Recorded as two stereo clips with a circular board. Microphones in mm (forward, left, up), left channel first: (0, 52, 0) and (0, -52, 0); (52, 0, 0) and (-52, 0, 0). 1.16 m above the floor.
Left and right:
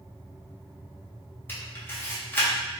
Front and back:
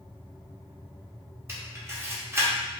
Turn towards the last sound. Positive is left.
turn(degrees=140)